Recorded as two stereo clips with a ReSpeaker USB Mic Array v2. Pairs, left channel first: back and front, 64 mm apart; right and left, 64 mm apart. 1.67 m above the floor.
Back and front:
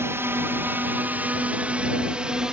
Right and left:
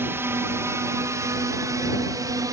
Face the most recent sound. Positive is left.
turn(degrees=75)